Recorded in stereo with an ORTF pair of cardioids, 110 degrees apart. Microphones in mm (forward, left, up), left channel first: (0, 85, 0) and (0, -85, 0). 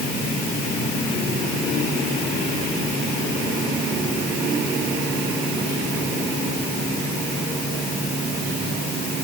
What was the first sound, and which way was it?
Only background noise.